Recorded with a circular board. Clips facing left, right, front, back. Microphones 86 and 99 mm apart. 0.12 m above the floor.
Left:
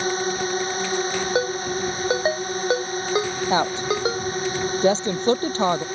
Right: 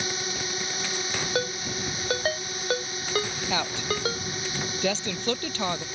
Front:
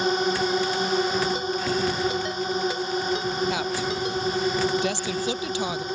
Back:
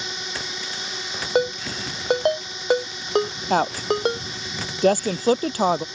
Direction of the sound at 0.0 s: 40° left.